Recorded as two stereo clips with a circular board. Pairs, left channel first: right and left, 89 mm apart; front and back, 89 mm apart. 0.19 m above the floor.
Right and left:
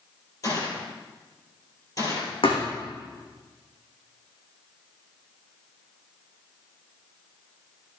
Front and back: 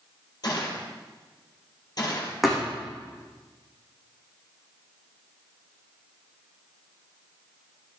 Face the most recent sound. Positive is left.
turn(degrees=-90)